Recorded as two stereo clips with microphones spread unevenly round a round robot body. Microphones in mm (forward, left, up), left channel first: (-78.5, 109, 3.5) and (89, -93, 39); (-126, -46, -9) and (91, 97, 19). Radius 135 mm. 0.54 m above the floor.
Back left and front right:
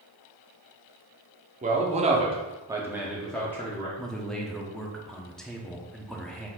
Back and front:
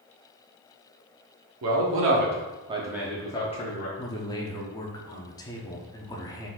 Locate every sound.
1.6 s a man speaking: 15° left, 1.0 m; by 3.9 s 170° right, 0.9 m
4.0 s a man speaking: 170° right, 0.6 m